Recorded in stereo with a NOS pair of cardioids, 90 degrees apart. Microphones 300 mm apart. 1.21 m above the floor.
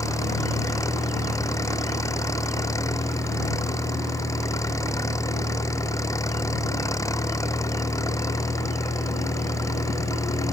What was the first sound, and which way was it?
An engine running, 10° left.